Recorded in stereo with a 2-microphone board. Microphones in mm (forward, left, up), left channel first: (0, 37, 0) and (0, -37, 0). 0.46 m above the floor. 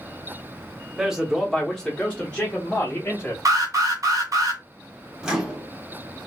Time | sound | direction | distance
1.0 | a man speaking | 10° right (ahead or behind) | 0.8 m
3.5 | an alarm | 50° right (ahead or behind) | 1.6 m
5.2 | a microwave | 10° right (ahead or behind) | 0.8 m